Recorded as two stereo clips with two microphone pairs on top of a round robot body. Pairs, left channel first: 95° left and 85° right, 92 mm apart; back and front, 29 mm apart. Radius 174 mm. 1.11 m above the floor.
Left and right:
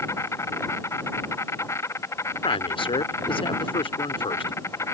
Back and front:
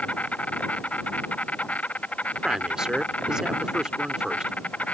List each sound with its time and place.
0.0 s an insect: 155° left
2.4 s a man speaking: 70° left